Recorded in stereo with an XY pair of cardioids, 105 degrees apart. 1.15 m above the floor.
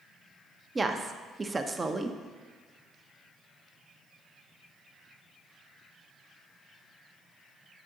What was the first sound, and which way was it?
A woman speaking, 25° right.